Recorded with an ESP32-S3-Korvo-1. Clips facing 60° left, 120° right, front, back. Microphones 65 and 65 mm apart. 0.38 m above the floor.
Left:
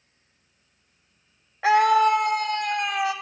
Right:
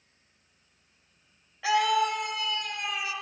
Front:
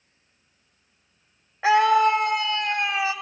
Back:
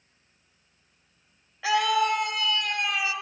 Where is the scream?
40° left, 1.6 m; by 3.1 s 55° left, 2.5 m.